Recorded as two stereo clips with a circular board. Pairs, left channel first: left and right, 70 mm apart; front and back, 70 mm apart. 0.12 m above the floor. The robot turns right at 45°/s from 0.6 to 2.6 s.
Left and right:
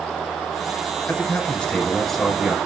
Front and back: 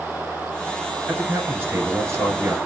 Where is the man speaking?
130° left, 1.3 m; by 2.6 s 165° right, 1.3 m.